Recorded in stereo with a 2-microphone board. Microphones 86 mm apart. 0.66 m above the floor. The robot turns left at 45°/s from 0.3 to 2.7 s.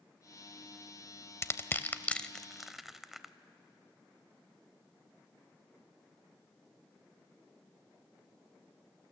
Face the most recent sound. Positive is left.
turn(degrees=-5)  # may be behind; listen again after turning